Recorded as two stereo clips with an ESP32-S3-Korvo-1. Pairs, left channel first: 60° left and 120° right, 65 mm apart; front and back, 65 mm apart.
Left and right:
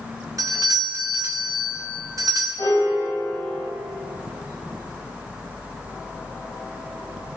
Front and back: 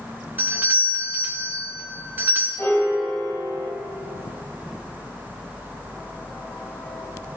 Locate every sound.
0.4 s a doorbell: 120° right, 1.7 m
2.6 s a piano: 55° left, 3.5 m